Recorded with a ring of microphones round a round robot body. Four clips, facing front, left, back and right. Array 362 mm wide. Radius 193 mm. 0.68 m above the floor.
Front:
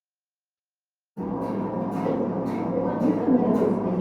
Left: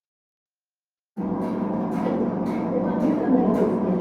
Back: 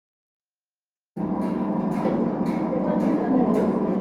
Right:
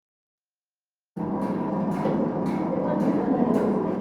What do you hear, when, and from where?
1.2 s hammering: 150° right, 0.7 m
3.0 s a woman speaking: 50° left, 0.6 m